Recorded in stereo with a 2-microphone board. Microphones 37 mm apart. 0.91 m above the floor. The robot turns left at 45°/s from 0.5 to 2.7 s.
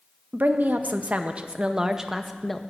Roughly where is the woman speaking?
Right.